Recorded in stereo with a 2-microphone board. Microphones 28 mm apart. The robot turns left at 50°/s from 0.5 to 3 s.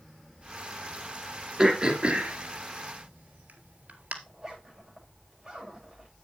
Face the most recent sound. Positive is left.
turn(degrees=-15)  # may be behind; listen again after turning